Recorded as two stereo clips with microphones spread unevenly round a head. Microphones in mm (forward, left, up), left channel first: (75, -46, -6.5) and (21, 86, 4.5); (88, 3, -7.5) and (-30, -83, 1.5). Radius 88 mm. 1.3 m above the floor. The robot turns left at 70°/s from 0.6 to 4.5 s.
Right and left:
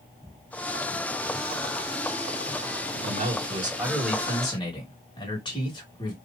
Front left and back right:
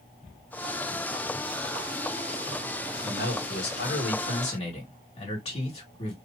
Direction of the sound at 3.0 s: 95° left.